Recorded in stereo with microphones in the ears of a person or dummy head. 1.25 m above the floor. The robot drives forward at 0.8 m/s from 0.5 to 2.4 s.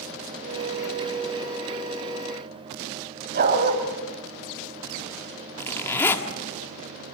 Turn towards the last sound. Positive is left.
turn(degrees=10)  # may be behind; listen again after turning